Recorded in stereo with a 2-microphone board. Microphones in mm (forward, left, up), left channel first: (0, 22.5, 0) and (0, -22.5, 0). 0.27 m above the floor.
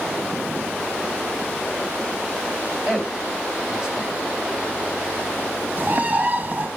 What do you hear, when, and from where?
2.9 s a man speaking: 20° right (ahead or behind), 1.3 m
5.8 s a bird: 40° right (ahead or behind), 0.7 m